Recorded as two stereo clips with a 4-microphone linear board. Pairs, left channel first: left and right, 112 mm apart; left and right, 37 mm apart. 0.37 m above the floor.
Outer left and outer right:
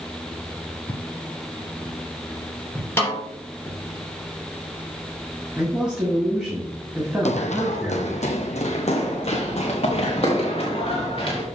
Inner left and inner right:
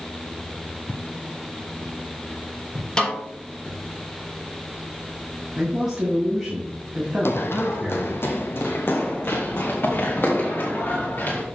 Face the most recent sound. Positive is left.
turn(degrees=50)  # may be behind; listen again after turning